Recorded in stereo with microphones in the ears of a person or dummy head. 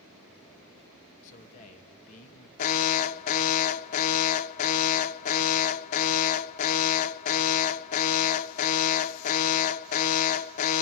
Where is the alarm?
45° left (ahead or behind), 0.5 m.